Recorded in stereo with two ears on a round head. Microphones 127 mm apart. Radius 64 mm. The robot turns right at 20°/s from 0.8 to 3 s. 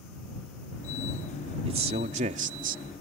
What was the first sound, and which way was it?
A man speaking, 45° right (ahead or behind).